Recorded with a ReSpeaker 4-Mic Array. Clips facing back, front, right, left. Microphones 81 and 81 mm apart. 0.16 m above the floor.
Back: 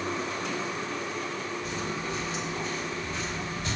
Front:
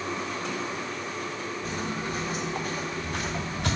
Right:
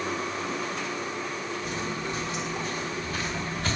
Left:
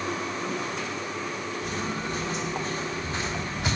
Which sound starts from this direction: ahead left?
Footsteps, at 1.6 s.